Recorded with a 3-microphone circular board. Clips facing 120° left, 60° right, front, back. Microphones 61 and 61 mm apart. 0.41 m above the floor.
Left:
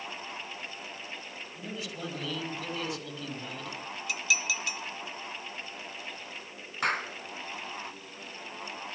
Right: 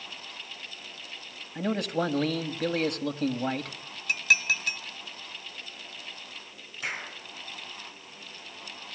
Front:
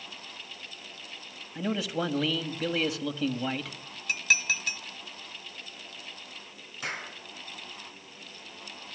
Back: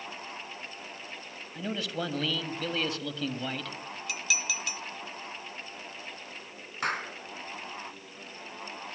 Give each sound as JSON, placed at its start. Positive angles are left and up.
{"t": 1.6, "sound": "a man speaking", "azimuth_deg": -80, "distance_m": 2.5}
{"t": 4.1, "sound": "dishes clattering", "azimuth_deg": -35, "distance_m": 1.0}
{"t": 6.8, "sound": "a clap", "azimuth_deg": 145, "distance_m": 4.0}